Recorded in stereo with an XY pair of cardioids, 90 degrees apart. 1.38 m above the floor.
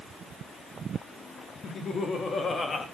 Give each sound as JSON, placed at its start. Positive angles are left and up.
{"t": 1.6, "sound": "laughter", "azimuth_deg": 60, "distance_m": 4.0}